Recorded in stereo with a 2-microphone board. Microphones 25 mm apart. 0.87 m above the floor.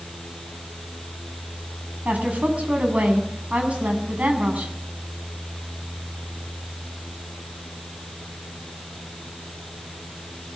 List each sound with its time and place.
2.0 s a woman speaking: 70° right (ahead or behind), 7 m